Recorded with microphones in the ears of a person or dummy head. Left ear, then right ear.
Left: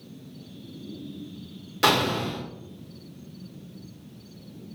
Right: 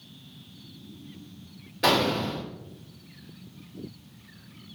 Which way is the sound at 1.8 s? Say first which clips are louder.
Left 1 dB; 50° left (ahead or behind).